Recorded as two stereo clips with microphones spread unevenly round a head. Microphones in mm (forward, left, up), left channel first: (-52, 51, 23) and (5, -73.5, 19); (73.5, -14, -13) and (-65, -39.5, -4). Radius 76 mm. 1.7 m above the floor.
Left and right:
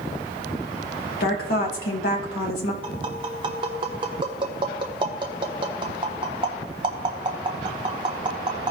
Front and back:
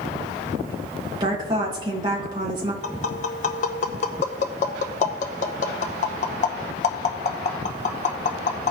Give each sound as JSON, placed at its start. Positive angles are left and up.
{"t": 1.2, "sound": "a woman speaking", "azimuth_deg": 125, "distance_m": 2.5}
{"t": 2.8, "sound": "tapping", "azimuth_deg": -10, "distance_m": 1.0}